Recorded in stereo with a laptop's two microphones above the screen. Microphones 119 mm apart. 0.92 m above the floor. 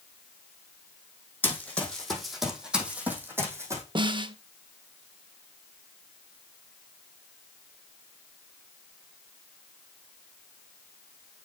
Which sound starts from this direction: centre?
Running footsteps, at 1.4 s.